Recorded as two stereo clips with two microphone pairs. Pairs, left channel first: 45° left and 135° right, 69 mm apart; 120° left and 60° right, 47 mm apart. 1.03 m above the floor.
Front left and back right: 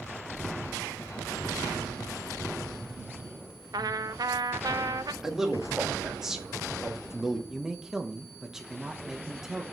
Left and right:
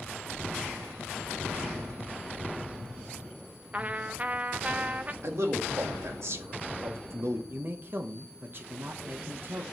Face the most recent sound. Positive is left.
turn(degrees=-50)